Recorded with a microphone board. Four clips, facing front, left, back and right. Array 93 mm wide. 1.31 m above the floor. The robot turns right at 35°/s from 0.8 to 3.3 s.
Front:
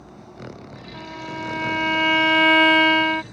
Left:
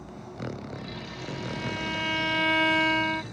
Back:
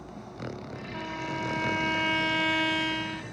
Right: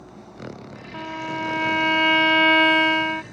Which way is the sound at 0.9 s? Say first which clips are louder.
Right 8 dB, front 2 dB; 95° right.